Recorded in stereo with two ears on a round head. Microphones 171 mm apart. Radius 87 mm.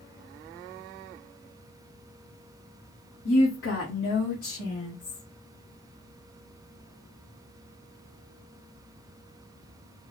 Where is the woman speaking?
80° left, 1.0 m; by 5.2 s 40° left (ahead or behind), 2.5 m.